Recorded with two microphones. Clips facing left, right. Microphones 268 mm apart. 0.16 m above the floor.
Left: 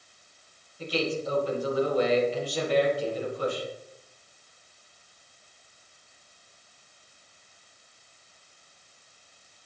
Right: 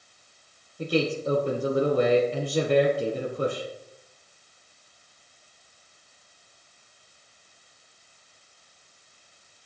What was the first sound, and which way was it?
A man speaking, 55° right (ahead or behind).